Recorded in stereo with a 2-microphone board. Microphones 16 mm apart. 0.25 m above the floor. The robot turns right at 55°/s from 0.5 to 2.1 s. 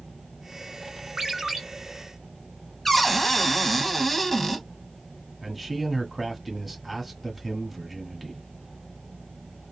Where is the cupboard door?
10° left (ahead or behind), 0.7 m.